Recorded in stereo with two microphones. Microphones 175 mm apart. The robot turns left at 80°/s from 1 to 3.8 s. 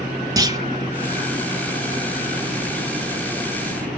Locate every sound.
0.4 s a clunk: 20° right (ahead or behind), 1.3 m